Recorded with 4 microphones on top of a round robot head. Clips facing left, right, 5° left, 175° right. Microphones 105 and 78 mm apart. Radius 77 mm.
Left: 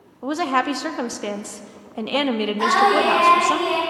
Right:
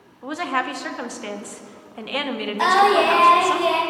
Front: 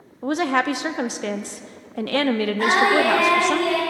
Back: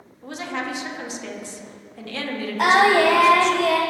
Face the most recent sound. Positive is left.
turn(degrees=-130)